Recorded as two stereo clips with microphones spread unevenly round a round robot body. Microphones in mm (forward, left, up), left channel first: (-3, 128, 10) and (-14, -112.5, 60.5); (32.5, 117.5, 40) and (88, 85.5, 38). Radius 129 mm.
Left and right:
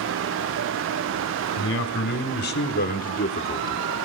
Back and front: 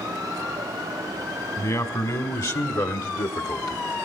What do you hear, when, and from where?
1.6 s a man speaking: 125° left, 2.5 m; by 3.8 s 160° left, 0.8 m